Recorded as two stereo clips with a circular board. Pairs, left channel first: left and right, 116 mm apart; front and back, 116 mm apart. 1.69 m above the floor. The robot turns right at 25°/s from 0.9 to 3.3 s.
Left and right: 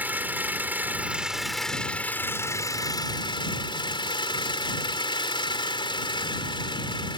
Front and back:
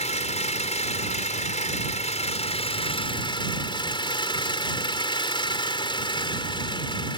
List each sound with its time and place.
0.0 s an engine running: 15° right; by 7.2 s 45° left